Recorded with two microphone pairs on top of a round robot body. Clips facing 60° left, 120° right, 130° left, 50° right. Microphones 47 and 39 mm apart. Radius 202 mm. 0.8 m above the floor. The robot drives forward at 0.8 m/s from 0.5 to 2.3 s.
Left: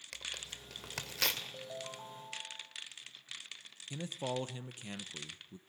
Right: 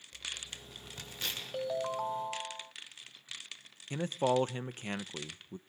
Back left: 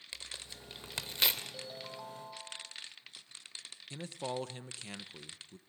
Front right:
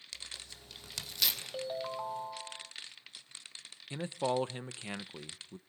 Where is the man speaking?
110° right, 1.0 m.